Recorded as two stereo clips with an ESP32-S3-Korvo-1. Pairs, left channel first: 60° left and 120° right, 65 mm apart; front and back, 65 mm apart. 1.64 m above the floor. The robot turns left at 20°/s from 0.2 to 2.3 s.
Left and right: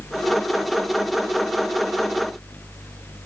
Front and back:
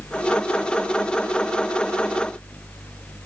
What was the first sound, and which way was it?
Only background noise.